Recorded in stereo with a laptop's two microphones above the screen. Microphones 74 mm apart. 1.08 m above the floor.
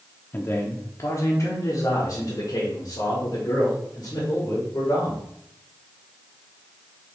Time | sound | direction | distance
0.3 | a man speaking | 25° left (ahead or behind) | 0.5 m